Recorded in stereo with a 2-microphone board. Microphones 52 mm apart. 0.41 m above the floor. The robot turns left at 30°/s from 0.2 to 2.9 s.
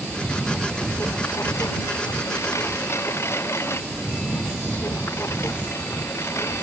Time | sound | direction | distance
0.0 | a lawn mower | 40° left (ahead or behind) | ?